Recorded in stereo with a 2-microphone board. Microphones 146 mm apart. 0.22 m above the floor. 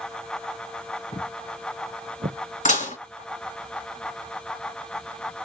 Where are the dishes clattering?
60° left (ahead or behind), 1.6 m.